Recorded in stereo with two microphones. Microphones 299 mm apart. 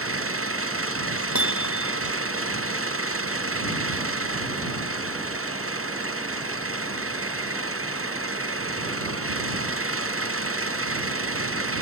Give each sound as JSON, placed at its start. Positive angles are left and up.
{"t": 0.0, "sound": "an engine running", "side_deg": -45}
{"t": 1.4, "sound": "hammering", "side_deg": 65}